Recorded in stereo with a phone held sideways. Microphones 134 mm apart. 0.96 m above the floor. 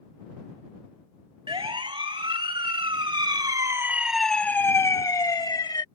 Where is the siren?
40° right (ahead or behind); by 5.8 s 30° left (ahead or behind).